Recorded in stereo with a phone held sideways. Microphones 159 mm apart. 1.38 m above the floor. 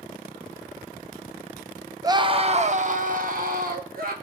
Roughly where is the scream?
Right.